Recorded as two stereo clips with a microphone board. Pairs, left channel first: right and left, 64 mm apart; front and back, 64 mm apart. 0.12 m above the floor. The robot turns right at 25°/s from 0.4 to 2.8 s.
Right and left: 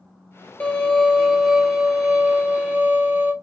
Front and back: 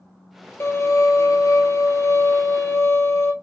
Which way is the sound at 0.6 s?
30° right.